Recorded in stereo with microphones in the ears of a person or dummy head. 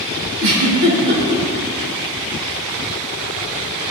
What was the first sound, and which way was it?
A giggle, 75° right (ahead or behind).